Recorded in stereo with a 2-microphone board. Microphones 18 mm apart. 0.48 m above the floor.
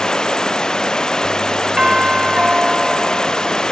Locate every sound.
0.0 s running water: 40° left (ahead or behind)
1.8 s a doorbell: 45° right (ahead or behind)